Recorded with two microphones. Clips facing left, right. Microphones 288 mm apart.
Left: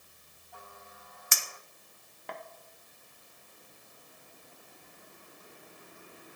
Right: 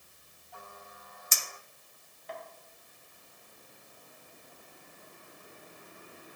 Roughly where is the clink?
Left.